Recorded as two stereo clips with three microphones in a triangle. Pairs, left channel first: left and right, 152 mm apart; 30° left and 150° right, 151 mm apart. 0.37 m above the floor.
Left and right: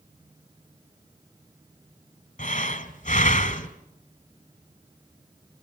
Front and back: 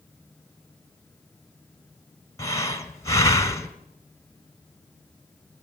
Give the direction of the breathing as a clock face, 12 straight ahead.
9 o'clock.